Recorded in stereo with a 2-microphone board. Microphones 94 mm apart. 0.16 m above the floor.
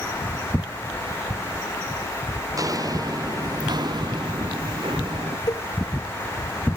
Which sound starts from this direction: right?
Footsteps, at 2.5 s.